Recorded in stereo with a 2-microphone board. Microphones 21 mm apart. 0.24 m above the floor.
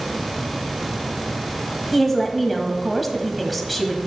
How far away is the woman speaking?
About 1.2 m.